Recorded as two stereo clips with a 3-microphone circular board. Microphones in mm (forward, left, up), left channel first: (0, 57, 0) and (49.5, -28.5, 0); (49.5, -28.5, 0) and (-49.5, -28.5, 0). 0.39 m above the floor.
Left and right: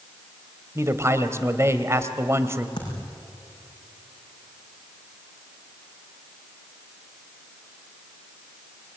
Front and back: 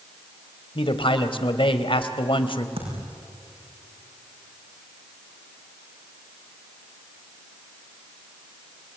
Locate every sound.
0.8 s a man speaking: straight ahead, 1.6 m
2.8 s a thud: 165° left, 6 m